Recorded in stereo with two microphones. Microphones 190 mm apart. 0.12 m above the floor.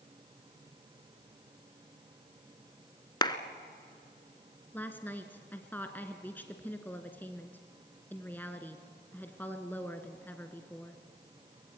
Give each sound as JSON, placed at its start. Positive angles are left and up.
{"t": 3.2, "sound": "a clap", "side_deg": 25, "distance_m": 1.1}
{"t": 4.7, "sound": "a woman speaking", "side_deg": 10, "distance_m": 1.1}